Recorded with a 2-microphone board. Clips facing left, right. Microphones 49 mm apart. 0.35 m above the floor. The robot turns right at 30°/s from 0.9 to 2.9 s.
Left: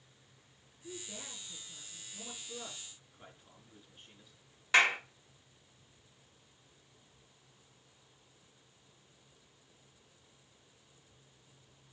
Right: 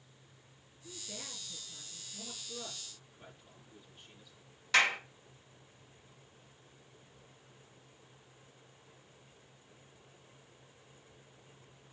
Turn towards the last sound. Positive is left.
turn(degrees=20)  # may be behind; listen again after turning